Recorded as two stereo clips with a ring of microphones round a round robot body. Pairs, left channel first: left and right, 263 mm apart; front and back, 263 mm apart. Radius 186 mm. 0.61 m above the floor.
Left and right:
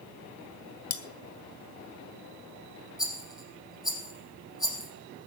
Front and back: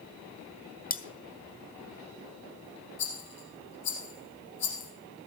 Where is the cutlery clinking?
60° left, 1.1 m.